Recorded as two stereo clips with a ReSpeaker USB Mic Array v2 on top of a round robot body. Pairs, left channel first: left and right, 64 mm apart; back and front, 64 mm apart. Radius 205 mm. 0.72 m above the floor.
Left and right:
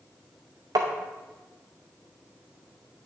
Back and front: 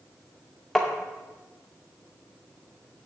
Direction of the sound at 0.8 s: 90° right.